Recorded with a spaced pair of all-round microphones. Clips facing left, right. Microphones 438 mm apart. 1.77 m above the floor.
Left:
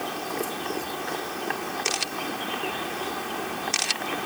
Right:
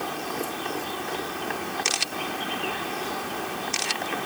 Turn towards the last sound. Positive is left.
No sound to turn to.